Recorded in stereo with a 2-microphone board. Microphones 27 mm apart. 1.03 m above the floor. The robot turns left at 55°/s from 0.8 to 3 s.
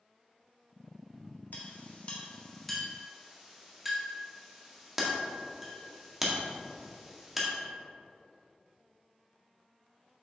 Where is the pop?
I don't hear a pop.